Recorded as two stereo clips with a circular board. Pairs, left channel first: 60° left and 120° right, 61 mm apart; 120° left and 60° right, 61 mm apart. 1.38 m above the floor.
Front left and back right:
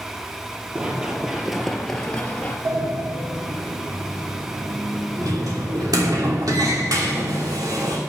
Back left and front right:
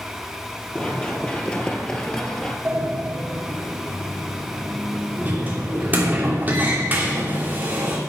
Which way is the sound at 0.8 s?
Straight behind.